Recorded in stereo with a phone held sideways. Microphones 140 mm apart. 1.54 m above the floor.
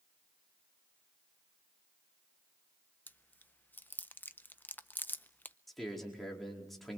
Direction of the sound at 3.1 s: 15° left (ahead or behind).